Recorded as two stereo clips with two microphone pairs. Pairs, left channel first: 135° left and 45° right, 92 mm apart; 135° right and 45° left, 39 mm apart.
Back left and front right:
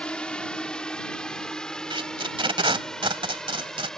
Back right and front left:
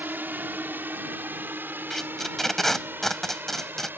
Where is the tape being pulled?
50° right.